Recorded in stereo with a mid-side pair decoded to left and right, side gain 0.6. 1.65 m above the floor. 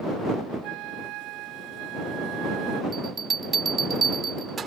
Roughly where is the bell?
Ahead right.